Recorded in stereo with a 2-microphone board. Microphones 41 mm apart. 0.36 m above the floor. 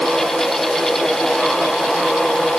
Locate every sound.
Only background noise.